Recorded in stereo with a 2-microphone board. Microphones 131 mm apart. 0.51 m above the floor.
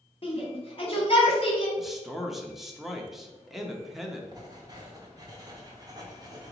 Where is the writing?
30° right (ahead or behind), 1.0 m.